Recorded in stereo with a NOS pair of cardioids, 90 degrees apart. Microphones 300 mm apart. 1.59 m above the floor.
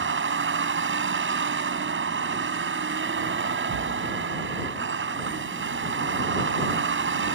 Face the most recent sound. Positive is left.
turn(degrees=-40)